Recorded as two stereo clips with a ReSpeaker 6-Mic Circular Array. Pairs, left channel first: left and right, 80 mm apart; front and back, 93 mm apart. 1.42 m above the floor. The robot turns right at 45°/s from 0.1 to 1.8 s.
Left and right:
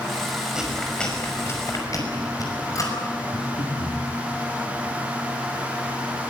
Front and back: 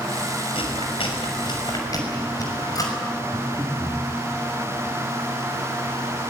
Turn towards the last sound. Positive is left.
turn(degrees=80)